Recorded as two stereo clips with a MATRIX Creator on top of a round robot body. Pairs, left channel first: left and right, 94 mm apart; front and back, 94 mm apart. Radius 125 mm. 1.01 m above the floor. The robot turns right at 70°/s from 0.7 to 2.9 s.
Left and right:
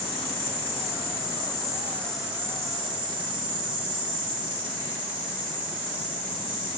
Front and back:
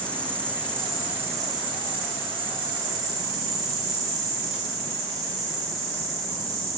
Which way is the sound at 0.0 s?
75° left.